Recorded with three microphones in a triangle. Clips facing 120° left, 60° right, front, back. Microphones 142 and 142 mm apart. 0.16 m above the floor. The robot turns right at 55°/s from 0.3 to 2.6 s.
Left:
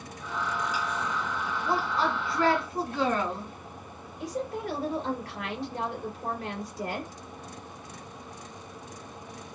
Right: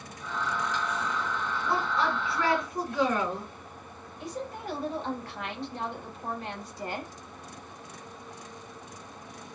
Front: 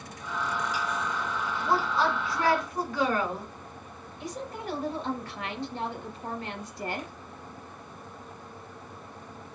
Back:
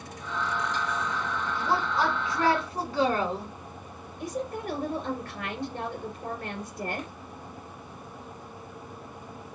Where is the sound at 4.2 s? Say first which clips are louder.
Left 4 dB, back 4 dB; 155° left, 2.5 m.